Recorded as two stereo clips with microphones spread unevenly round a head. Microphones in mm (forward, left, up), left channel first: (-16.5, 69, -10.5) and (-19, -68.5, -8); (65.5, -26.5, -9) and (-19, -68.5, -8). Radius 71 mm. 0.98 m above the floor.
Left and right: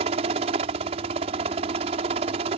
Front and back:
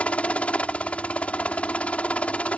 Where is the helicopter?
50° right.